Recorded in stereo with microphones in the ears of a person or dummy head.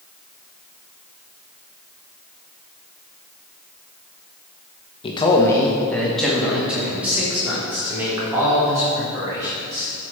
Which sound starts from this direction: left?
A man speaking, at 5.0 s.